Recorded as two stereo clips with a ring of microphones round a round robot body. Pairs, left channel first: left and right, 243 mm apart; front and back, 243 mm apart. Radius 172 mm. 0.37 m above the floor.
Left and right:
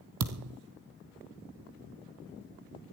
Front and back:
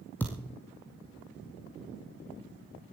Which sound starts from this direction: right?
A thud, at 0.2 s.